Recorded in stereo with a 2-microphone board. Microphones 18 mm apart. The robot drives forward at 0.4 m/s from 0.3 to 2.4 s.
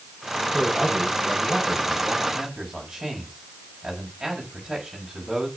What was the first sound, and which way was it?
A man speaking, 30° right (ahead or behind).